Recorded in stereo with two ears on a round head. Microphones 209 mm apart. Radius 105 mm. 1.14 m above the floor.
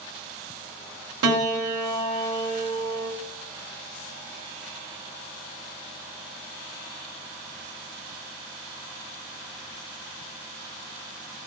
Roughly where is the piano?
Right.